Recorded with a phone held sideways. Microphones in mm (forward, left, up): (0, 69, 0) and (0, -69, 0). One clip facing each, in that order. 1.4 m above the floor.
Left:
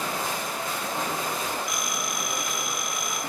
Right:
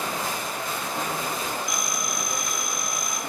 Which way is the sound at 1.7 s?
40° right (ahead or behind).